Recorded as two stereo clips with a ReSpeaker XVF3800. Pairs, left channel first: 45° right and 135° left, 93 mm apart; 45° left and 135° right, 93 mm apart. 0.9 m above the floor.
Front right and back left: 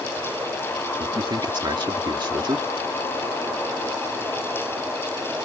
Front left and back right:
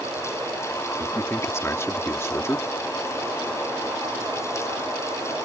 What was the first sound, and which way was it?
A man speaking, 105° left.